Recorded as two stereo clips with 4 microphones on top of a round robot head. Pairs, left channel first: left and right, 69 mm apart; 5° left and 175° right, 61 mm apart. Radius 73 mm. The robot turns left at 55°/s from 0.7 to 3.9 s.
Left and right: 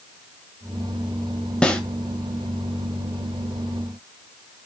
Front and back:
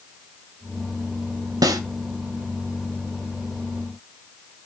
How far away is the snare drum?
About 1.6 m.